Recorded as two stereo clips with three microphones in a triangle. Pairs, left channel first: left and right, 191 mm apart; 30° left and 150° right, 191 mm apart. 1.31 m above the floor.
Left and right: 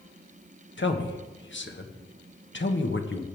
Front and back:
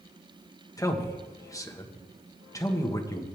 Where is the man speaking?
100° left, 1.3 m.